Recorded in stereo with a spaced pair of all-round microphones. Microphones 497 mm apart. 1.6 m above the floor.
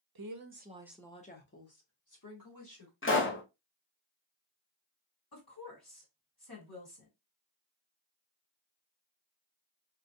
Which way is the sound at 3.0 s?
25° left (ahead or behind).